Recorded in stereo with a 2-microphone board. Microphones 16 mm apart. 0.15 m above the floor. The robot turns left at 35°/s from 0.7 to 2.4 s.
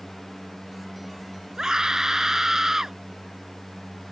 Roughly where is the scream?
Right.